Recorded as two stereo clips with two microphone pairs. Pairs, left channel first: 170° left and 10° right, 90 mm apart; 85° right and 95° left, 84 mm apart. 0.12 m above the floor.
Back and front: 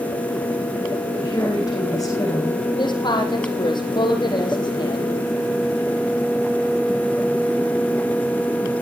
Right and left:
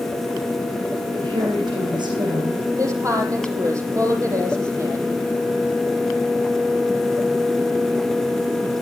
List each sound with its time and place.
1.1 s a woman speaking: 120° left, 10 m
2.8 s a woman speaking: 145° left, 5 m